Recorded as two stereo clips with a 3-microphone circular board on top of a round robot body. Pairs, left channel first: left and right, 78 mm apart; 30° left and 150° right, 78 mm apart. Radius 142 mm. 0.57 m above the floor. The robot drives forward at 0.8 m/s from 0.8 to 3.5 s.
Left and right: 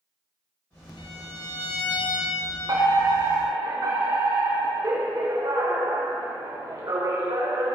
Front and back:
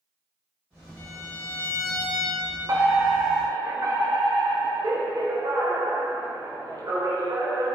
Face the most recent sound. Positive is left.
turn(degrees=-120)